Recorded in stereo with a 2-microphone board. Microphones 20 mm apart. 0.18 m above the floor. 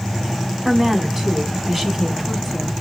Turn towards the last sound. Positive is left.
turn(degrees=-10)  # may be behind; listen again after turning